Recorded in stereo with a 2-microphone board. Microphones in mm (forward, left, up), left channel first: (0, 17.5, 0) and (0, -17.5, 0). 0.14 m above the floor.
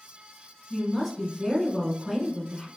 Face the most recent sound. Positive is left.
turn(degrees=10)  # may be behind; listen again after turning